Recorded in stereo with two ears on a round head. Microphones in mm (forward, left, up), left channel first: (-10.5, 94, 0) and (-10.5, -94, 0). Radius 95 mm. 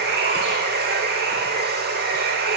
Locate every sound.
0.0 s running water: 50° right (ahead or behind), 1.0 m